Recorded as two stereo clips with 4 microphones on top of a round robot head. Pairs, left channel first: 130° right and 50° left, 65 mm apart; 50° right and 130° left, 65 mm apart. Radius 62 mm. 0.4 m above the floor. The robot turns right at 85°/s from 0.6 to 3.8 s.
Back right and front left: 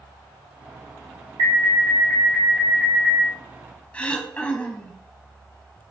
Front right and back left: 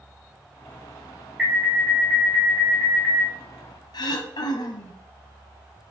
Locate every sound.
1.4 s an alarm: 50° left, 4 m; by 3.3 s 145° right, 4 m
3.9 s throat clearing: 60° right, 1.5 m